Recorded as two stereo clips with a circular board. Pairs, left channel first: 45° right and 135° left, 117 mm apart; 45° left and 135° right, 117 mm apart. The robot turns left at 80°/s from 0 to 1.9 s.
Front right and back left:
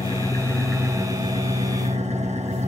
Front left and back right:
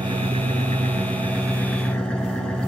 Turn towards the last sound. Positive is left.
turn(degrees=130)